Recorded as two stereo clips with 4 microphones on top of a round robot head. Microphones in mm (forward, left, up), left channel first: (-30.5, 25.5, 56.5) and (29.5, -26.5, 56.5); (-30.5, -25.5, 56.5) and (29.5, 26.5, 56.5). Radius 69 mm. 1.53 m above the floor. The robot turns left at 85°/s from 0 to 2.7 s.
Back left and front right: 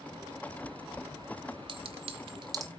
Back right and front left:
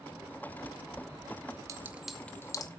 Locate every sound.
1.7 s a clink: 10° right, 1.0 m; by 2.7 s 95° right, 1.0 m